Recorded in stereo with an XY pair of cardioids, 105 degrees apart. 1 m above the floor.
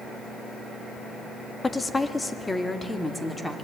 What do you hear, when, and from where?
1.6 s a woman speaking: 25° left, 1.8 m; by 3.6 s 10° left, 3 m